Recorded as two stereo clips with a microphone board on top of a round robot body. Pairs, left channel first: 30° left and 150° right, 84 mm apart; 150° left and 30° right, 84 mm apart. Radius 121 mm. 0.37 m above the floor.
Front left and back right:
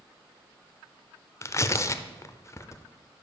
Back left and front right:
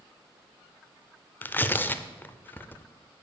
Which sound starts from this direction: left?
Tearing paper, at 1.4 s.